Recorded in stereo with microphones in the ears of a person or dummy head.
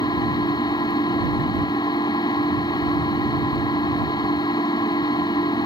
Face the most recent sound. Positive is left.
turn(degrees=20)  # may be behind; listen again after turning